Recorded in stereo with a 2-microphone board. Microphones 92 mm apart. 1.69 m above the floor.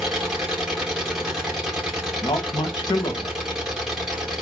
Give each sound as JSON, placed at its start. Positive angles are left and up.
{"t": 0.0, "sound": "an engine running", "side_deg": -10, "distance_m": 1.9}
{"t": 2.2, "sound": "a man speaking", "side_deg": 50, "distance_m": 1.4}